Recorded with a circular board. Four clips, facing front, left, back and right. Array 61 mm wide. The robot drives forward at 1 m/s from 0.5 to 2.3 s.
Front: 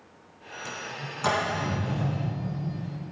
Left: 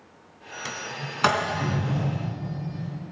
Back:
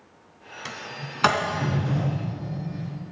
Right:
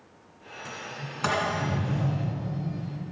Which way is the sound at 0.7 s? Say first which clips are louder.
Left 4 dB, even; 135° left.